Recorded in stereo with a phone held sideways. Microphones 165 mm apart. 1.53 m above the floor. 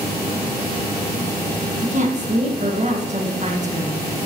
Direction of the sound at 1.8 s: 45° right (ahead or behind).